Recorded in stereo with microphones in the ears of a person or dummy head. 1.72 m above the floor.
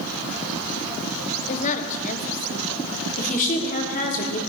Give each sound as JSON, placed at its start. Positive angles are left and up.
{"t": 1.5, "sound": "a woman speaking", "side_deg": 40, "distance_m": 1.3}
{"t": 3.2, "sound": "a woman speaking", "side_deg": 40, "distance_m": 3.5}